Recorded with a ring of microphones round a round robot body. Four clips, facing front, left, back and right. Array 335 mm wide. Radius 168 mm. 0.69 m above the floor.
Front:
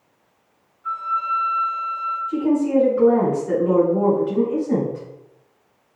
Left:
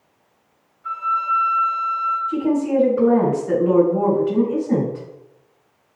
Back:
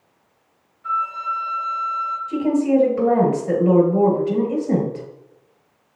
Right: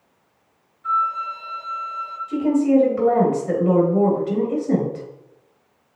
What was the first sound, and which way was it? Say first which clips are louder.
A flute: even, even; 140° right.